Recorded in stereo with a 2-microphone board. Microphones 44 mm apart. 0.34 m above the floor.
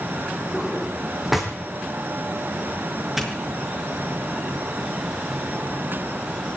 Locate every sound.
0.5 s a drawer: 5° right (ahead or behind), 4.5 m
3.2 s a doorbell: 5° right (ahead or behind), 5.5 m